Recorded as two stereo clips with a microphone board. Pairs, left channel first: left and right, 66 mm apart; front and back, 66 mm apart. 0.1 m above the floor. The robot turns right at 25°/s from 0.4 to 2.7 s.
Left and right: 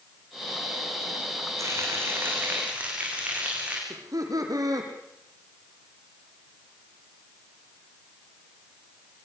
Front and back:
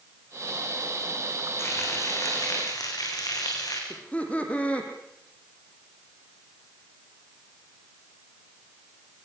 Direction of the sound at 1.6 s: 50° right.